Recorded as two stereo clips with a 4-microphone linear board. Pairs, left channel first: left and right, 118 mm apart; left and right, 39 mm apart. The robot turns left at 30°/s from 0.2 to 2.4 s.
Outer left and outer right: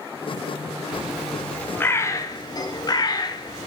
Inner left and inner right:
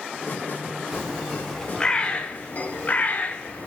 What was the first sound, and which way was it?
A bird, 10° right (ahead or behind).